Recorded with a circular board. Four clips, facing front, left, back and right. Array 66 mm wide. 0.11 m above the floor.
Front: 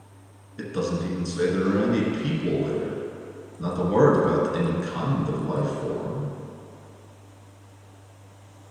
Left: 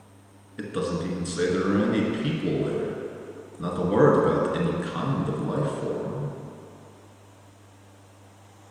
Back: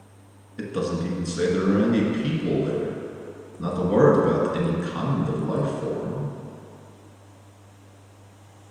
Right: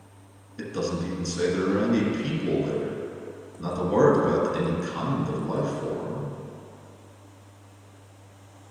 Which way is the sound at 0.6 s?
105° left.